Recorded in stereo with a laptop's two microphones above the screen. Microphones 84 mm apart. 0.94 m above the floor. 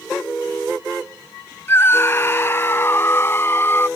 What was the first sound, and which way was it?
A scream, 30° left (ahead or behind).